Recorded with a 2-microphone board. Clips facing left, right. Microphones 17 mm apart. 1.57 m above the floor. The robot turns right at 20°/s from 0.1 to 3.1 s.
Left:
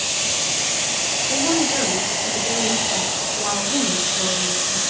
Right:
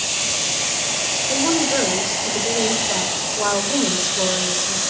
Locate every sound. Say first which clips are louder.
1.3 s a woman speaking: right 1 dB; 155° right, 6 m; by 4.8 s 115° right, 6 m